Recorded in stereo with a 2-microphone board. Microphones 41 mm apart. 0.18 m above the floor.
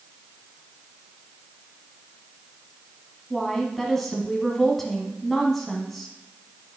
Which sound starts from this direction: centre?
A woman speaking, at 3.3 s.